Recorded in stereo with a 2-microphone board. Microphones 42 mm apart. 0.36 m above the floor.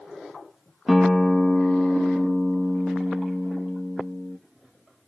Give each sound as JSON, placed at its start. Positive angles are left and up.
{"t": 0.9, "sound": "a guitar", "side_deg": -5, "distance_m": 0.8}